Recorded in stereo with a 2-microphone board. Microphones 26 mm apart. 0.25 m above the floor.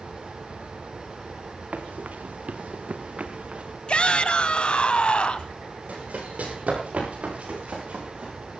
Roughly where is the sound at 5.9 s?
Right.